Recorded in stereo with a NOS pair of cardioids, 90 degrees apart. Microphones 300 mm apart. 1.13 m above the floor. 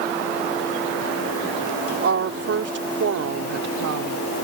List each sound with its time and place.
2.0 s a woman speaking: 50° right; by 4.3 s 65° right